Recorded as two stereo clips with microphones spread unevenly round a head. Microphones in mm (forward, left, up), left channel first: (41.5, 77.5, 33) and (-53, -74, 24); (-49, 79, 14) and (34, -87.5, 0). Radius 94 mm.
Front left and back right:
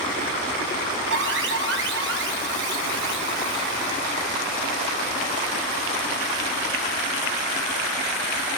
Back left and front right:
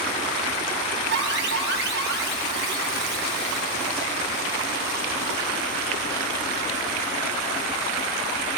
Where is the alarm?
95° right, 5 m.